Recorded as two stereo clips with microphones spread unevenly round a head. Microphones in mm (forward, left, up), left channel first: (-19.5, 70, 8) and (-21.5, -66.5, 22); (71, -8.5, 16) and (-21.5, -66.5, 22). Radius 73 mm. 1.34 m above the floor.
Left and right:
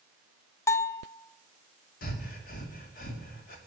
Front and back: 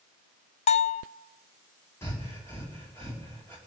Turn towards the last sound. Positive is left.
turn(degrees=105)